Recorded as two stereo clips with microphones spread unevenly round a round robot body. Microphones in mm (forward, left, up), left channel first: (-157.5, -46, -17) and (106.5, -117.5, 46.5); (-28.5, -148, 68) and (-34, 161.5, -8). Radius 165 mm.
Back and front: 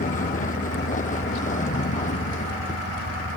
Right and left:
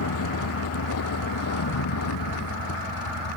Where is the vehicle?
135° right; by 3.4 s 130° right.